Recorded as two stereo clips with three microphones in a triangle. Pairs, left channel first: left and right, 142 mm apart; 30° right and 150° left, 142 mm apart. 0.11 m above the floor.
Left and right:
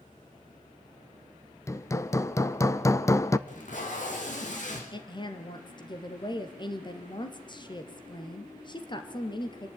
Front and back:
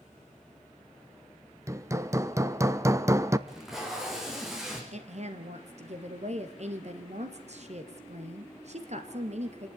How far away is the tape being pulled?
About 4 m.